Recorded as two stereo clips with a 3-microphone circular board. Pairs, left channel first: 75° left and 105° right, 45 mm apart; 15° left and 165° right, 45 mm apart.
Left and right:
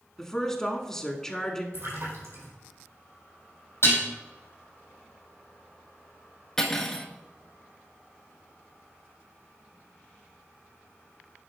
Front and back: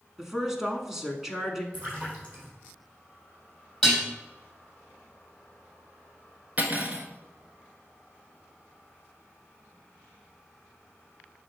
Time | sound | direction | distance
0.2 | a woman speaking | 135° left | 1.1 m
1.7 | a splash | 115° right | 3.5 m
3.8 | dishes clattering | 95° left | 3.5 m
6.6 | cutlery clinking | 150° left | 1.2 m